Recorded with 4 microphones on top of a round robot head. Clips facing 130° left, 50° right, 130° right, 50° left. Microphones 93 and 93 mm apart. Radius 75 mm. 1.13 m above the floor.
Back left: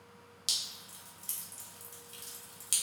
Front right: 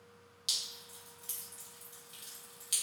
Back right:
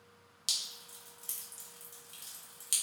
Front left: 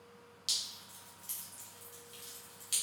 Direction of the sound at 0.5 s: 175° right.